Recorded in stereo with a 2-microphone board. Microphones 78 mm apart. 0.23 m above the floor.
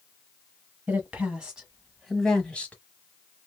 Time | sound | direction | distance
0.9 | a woman speaking | 20° right (ahead or behind) | 1.5 m